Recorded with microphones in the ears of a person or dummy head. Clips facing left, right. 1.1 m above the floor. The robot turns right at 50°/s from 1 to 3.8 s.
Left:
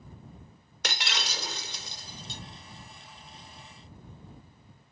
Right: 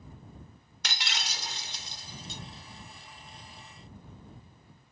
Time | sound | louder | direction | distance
0.8 | breaking glass | left 4 dB | 50° left | ?